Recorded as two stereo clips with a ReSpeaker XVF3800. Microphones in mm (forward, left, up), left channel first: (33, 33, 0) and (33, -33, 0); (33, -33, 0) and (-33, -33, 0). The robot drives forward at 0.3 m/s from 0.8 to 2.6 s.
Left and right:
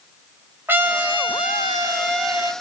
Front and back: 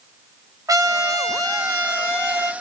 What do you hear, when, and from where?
0.7 s a trumpet: 150° right, 0.6 m; by 2.5 s 160° right, 1.1 m